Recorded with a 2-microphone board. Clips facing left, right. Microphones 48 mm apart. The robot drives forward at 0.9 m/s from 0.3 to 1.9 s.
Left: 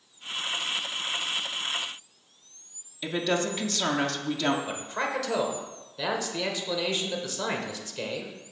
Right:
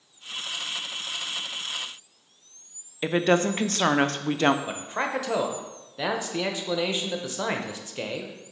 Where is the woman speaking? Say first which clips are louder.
Right 6 dB; 45° right (ahead or behind), 0.5 m.